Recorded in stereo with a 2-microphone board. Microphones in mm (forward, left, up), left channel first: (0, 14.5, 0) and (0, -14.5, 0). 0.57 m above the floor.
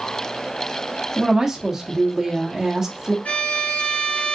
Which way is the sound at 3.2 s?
65° left (ahead or behind).